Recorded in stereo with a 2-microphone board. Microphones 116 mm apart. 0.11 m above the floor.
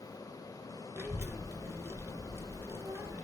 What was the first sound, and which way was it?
A child speaking, 20° right (ahead or behind).